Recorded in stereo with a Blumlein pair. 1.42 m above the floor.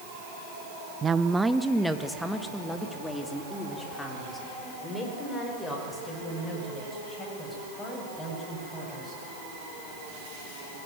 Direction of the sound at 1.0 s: 20° right.